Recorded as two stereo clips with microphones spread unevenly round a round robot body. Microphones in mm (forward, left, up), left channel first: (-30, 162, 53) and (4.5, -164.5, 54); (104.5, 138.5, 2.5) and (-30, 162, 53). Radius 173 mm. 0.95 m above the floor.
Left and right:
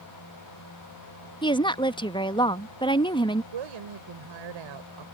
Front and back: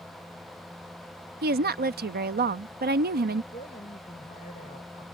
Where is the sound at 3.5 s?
75° right.